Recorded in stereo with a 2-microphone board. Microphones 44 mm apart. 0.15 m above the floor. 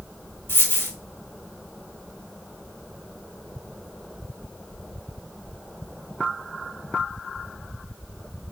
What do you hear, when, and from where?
0.5 s a dropped coin: 60° left (ahead or behind), 2 m